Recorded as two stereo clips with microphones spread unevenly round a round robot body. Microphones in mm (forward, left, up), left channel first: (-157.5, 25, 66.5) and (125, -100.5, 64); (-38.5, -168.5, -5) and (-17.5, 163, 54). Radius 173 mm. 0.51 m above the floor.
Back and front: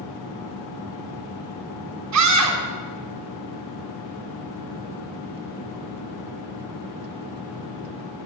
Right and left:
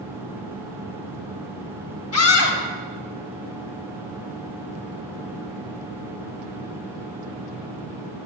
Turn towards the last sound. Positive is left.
turn(degrees=-50)